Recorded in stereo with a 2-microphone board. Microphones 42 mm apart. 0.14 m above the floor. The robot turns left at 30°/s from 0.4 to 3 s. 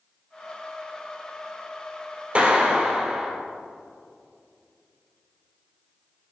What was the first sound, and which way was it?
A clap, 30° right (ahead or behind).